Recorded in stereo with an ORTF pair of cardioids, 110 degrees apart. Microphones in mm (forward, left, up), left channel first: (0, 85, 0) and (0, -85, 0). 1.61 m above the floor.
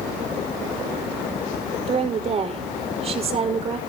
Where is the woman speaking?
35° right, 5 m.